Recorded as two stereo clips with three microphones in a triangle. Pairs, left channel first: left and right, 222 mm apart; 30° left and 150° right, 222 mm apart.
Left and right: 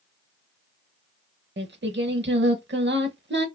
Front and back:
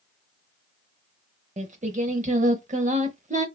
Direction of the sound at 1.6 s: 100° right.